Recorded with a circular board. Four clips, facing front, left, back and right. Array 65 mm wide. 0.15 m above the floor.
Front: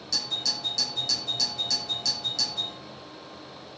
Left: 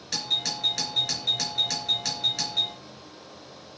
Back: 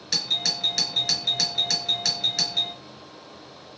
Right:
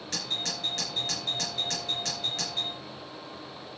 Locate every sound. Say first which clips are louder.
0.1 s a doorbell: left 4 dB, back 4 dB; 160° left, 3 m